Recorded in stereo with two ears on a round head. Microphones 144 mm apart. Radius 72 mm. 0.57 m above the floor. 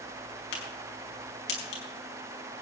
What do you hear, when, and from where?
0.5 s a crack: 80° left, 5.5 m